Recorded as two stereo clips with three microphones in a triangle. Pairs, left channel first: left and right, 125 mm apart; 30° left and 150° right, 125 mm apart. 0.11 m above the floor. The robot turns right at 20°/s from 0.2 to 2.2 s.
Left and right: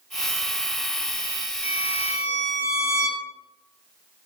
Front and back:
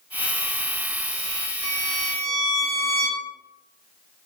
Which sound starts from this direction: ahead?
A violin, at 1.6 s.